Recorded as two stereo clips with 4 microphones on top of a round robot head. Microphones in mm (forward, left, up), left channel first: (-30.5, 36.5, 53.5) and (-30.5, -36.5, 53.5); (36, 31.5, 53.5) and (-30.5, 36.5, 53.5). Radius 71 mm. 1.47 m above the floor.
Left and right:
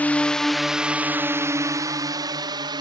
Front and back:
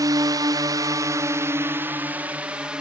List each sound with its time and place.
0.0 s a drone: 155° left; by 2.8 s 105° right